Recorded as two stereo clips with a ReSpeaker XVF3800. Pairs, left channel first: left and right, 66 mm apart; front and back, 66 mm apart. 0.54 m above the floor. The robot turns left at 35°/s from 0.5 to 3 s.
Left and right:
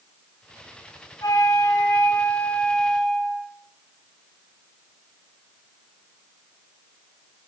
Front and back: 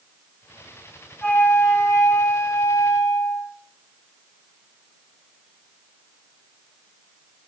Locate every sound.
1.2 s a flute: 65° left, 3 m; by 3.5 s 5° left, 3 m